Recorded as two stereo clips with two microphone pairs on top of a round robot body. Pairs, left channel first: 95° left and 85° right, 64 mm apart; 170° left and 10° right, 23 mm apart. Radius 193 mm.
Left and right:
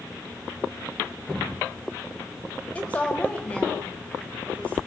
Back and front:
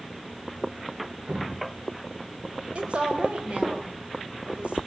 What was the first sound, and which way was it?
Dripping, 20° left.